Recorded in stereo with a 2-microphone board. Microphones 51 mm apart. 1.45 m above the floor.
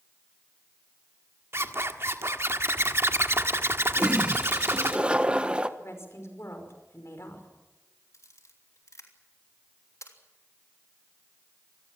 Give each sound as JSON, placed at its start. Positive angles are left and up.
{"t": 1.5, "sound": "a zipper", "side_deg": -55, "distance_m": 1.6}
{"t": 4.0, "sound": "a toilet flushing", "side_deg": -20, "distance_m": 1.2}
{"t": 5.8, "sound": "a woman speaking", "side_deg": 55, "distance_m": 5.5}
{"t": 8.1, "sound": "a camera shutter", "side_deg": 80, "distance_m": 3.0}